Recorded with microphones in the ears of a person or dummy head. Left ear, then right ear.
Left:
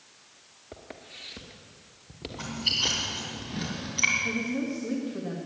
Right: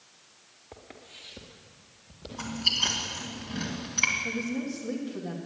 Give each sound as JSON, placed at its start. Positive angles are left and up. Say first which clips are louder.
{"t": 0.7, "sound": "footsteps", "louder": "left 3 dB", "side_deg": 0, "distance_m": 1.5}
{"t": 2.3, "sound": "chewing", "louder": "right 1 dB", "side_deg": -25, "distance_m": 3.0}
{"t": 4.2, "sound": "a woman speaking", "louder": "left 2 dB", "side_deg": -5, "distance_m": 1.5}